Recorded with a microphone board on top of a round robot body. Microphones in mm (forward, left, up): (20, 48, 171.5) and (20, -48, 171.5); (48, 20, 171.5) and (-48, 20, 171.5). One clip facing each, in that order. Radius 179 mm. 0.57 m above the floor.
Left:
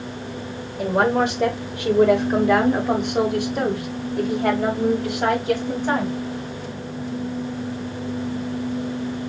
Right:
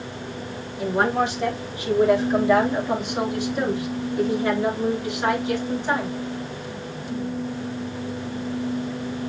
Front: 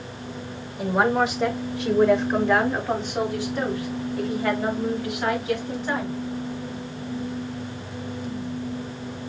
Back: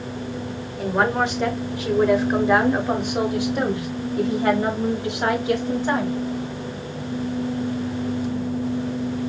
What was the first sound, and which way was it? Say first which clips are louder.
A woman speaking: left 3 dB, even; 80° left.